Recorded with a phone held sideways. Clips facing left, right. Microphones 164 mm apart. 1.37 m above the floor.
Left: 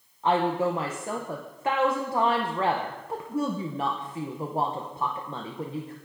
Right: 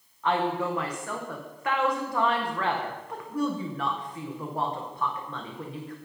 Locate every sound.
0.2 s a woman speaking: 25° left (ahead or behind), 0.7 m